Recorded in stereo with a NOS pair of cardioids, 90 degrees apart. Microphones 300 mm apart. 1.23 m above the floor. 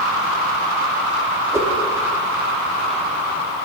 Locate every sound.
1.5 s a whoosh: 10° right, 1.1 m